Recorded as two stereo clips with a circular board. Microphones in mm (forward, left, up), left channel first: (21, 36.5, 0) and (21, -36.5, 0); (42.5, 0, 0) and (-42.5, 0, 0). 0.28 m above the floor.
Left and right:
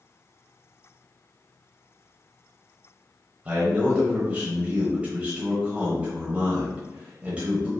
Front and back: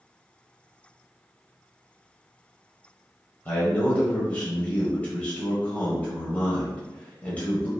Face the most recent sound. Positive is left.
turn(degrees=-45)